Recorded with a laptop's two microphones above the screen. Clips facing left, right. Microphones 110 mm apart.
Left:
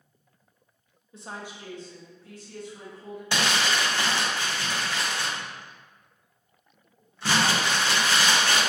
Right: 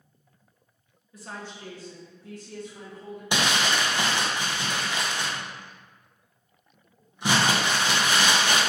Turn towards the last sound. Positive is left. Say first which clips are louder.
# right 1 dB
turn(degrees=-15)  # may be behind; listen again after turning